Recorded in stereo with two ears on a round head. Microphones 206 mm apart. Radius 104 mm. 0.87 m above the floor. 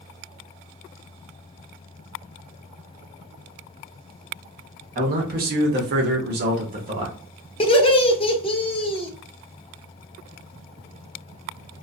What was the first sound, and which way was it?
A man speaking, 35° right (ahead or behind).